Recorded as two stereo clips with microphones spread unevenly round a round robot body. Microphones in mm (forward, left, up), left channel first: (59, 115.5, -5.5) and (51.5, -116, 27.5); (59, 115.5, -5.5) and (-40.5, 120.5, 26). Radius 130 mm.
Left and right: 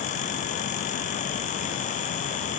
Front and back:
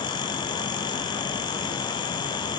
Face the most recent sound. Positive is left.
No sound to turn to.